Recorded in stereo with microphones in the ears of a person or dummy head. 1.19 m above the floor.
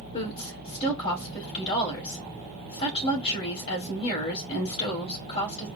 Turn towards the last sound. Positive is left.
turn(degrees=30)  # may be behind; listen again after turning